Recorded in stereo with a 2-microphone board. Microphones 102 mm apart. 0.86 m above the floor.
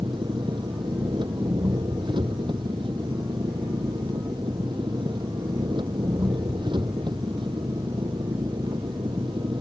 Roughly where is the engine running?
Right.